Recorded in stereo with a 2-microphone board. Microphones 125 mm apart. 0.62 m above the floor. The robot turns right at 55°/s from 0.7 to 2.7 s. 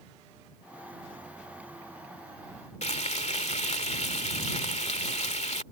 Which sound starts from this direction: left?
Frying, at 2.8 s.